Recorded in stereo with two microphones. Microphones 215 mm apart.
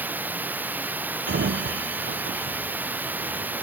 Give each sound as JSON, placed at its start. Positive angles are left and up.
{"t": 0.0, "sound": "running water", "side_deg": -10}
{"t": 1.3, "sound": "a sliding door", "side_deg": -60}